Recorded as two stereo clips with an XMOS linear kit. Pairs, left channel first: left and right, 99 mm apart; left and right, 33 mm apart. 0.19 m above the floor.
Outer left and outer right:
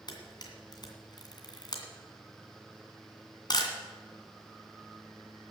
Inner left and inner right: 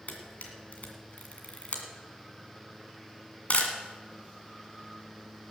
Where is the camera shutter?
45° left (ahead or behind), 1.9 m.